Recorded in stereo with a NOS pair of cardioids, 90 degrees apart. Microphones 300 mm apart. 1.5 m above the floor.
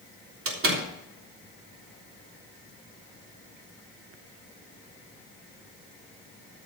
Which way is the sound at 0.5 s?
45° right.